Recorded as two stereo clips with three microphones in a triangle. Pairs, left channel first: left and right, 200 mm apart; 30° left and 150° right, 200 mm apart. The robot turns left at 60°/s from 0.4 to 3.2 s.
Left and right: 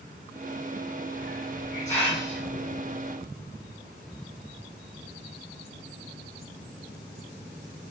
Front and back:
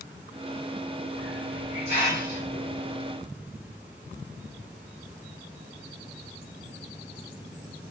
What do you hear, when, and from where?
1.1 s a hiss: 65° left, 2.5 m; by 3.2 s 60° right, 2.5 m